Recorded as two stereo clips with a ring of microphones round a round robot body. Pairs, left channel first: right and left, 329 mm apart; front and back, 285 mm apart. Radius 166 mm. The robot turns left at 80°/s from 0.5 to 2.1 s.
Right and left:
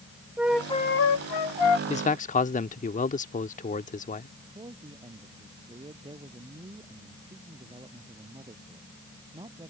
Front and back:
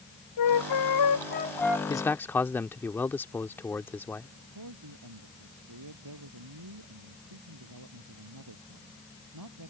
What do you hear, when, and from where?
0.4 s a flute: 5° left; by 1.8 s 100° right
1.9 s a man speaking: 55° right; by 4.3 s 70° right
4.5 s a man speaking: 165° left